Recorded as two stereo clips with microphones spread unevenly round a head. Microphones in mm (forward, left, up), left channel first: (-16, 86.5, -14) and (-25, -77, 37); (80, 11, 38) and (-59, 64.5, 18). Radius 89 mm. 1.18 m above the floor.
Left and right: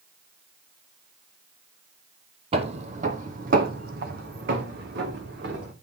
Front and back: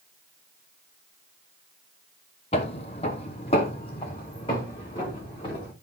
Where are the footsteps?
65° right, 1.8 m; by 5.7 s 85° right, 5 m.